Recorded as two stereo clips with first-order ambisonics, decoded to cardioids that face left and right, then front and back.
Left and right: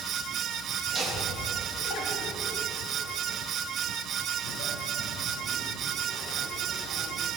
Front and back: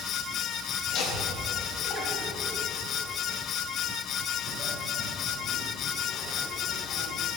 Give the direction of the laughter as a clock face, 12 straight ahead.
12 o'clock.